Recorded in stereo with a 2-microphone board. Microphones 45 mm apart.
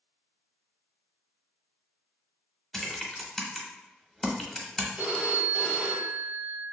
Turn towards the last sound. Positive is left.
turn(degrees=-20)  # may be behind; listen again after turning